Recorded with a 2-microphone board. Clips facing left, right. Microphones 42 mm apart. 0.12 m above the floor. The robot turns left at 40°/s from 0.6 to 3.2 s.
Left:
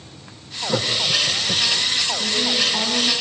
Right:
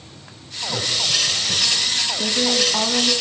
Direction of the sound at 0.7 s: 65° left (ahead or behind).